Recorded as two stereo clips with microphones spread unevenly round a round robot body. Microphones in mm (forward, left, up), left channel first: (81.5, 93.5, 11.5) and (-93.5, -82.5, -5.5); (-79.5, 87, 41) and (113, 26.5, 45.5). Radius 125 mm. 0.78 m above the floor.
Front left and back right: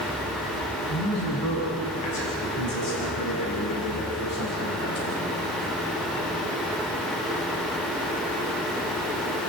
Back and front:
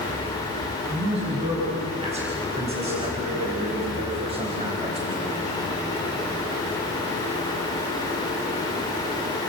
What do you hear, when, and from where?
0.9 s a man speaking: 40° left, 7 m; by 5.3 s 45° left, 4.5 m